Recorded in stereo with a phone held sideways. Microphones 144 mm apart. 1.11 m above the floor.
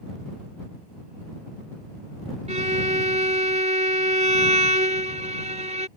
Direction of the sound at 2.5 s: 55° right (ahead or behind).